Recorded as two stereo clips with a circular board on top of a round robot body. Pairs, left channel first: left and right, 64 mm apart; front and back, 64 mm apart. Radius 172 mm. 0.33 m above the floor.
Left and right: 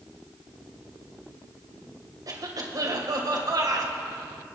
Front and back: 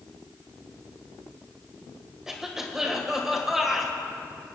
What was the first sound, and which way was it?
A cough, 95° right.